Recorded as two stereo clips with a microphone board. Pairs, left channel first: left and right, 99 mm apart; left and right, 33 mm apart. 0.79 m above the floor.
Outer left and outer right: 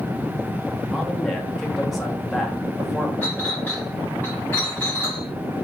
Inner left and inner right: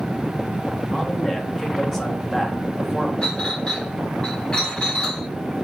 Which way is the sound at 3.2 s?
20° left (ahead or behind).